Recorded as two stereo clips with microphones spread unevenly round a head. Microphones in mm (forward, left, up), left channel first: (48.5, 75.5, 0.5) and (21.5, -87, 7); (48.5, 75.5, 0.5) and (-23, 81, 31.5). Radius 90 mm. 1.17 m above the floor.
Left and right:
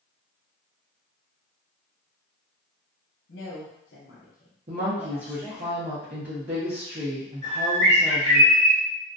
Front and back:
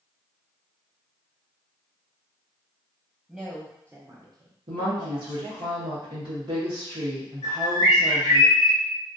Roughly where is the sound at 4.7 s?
Behind right.